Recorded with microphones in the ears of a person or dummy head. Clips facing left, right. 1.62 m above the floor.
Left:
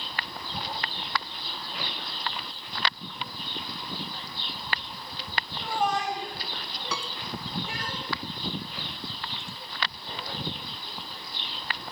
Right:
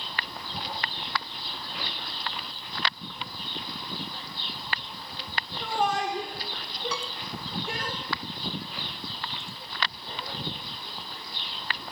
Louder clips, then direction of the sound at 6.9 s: Left 3 dB; 60° left (ahead or behind).